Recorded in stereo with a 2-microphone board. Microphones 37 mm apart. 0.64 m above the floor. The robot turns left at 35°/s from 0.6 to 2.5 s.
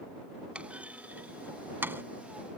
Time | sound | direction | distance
0.6 | a clunk | 30° right (ahead or behind) | ?